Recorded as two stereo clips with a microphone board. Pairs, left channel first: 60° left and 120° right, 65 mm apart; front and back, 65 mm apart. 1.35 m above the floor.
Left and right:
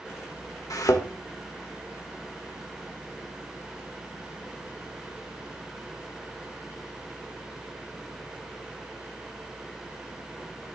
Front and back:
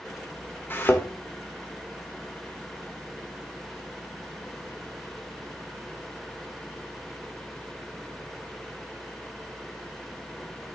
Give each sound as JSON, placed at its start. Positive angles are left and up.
{"t": 0.7, "sound": "a thud", "azimuth_deg": 50, "distance_m": 1.7}